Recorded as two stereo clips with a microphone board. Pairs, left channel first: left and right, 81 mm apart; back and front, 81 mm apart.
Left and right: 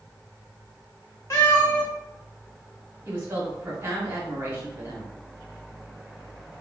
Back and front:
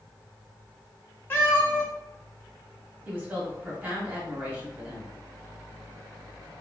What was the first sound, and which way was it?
A cat meowing, 125° left.